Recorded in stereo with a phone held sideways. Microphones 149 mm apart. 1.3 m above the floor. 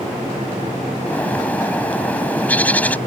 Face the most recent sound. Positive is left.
turn(degrees=10)  # may be behind; listen again after turning